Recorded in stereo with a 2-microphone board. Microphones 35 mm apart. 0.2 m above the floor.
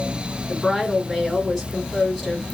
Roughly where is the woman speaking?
Centre.